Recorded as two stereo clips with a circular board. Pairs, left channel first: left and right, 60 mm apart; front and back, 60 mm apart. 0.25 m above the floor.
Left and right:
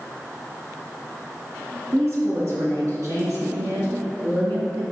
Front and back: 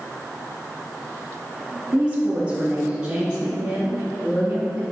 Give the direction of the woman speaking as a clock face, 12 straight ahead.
4 o'clock.